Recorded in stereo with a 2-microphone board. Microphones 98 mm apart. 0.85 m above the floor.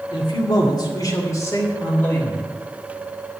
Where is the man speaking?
60° left (ahead or behind), 1.8 m; by 2.5 s 20° left (ahead or behind), 3.5 m.